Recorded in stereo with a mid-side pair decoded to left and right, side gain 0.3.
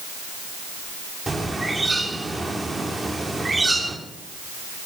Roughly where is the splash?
I don't hear a splash.